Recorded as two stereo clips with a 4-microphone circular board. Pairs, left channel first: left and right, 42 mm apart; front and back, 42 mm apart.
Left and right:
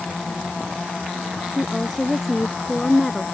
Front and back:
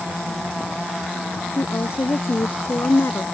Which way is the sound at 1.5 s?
5° left.